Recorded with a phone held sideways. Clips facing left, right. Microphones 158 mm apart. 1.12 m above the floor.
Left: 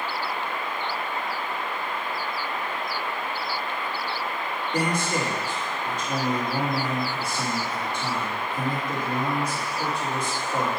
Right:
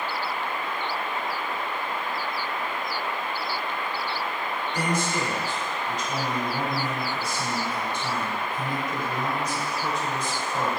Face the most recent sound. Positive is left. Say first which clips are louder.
# left 2 dB
turn(degrees=80)